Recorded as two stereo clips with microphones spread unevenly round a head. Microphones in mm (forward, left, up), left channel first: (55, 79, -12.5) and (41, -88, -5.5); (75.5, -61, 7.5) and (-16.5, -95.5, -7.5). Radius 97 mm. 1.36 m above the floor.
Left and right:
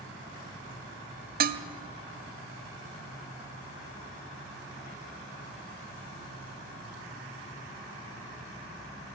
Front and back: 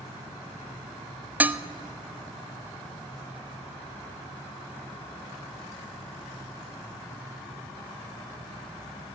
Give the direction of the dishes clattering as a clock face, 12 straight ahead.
3 o'clock.